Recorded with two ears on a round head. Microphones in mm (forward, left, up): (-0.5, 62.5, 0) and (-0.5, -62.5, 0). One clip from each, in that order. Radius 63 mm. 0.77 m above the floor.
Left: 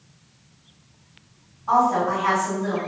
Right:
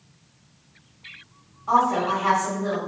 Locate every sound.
1.7 s a woman speaking: 40° right (ahead or behind), 1.5 m